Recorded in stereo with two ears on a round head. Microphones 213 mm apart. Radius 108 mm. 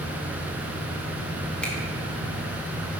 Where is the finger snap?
5° left (ahead or behind), 0.8 m.